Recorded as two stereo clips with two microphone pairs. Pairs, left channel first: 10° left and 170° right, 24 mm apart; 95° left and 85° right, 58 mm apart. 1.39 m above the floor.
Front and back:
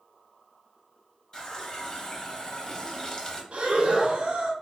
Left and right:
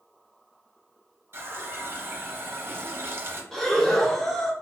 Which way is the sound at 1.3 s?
45° right.